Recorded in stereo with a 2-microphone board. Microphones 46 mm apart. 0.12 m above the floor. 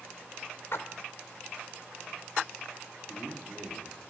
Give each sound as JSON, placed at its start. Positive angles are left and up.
{"t": 0.7, "sound": "a splash", "side_deg": 50, "distance_m": 1.1}
{"t": 3.1, "sound": "a man speaking", "side_deg": 5, "distance_m": 5.5}